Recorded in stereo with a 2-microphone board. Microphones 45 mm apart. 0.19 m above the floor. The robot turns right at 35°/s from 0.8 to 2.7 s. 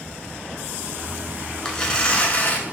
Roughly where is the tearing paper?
Ahead.